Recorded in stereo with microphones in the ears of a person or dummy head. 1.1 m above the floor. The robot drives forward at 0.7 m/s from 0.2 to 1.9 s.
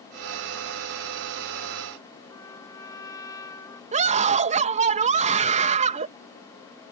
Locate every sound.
2.3 s a trumpet: 25° left (ahead or behind)
3.9 s a scream: 30° right (ahead or behind)